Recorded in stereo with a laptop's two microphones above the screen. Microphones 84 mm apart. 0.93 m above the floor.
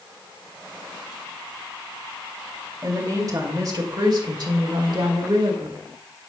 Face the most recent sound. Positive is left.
turn(degrees=-65)  # may be behind; listen again after turning